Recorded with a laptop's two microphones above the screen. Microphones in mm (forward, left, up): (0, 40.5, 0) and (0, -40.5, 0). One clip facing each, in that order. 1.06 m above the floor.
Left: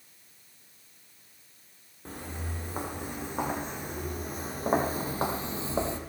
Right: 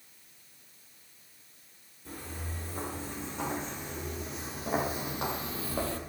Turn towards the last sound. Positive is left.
turn(degrees=20)  # may be behind; listen again after turning